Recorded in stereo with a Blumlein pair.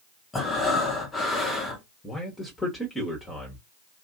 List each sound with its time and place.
0.3 s breathing: 10° left, 0.9 m
2.0 s a man speaking: 10° left, 1.1 m